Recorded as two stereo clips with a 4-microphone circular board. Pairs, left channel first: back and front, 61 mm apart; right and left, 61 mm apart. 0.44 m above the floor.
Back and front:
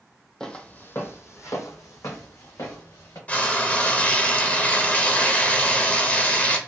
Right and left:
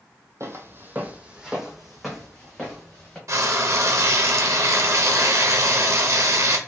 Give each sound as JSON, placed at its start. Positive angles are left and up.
{"t": 0.4, "sound": "footsteps", "azimuth_deg": 105, "distance_m": 0.6}
{"t": 3.3, "sound": "frying", "azimuth_deg": 115, "distance_m": 0.5}